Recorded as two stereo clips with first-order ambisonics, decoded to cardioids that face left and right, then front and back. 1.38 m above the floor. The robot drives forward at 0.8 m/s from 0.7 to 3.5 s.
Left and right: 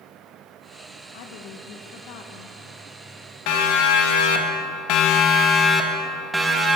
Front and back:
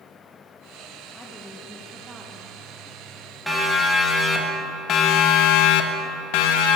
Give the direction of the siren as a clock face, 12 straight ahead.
9 o'clock.